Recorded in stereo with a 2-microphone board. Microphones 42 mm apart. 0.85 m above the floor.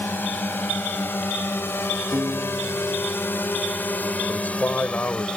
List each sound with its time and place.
0.0 s a drone: 55° left (ahead or behind); by 5.4 s 25° left (ahead or behind)
2.1 s a piano: 65° right (ahead or behind)
4.3 s a man speaking: 50° left (ahead or behind)